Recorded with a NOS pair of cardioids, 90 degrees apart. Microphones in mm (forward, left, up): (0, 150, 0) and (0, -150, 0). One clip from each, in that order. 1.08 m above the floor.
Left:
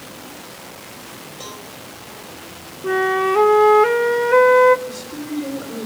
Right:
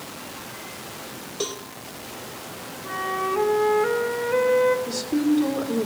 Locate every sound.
1.4 s a cowbell: 70° right, 2.5 m
2.8 s a flute: 45° left, 0.9 m
4.9 s a woman speaking: 65° right, 4 m